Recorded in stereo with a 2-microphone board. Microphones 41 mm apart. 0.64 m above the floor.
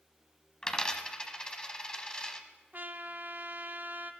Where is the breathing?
I don't hear breathing.